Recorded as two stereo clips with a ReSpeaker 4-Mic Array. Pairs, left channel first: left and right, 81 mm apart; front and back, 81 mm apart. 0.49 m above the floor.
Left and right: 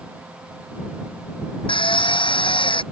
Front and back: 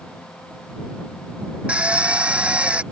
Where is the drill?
105° left.